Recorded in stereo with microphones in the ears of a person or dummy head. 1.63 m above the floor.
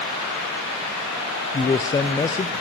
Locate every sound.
1.5 s a man speaking: 20° left (ahead or behind), 0.6 m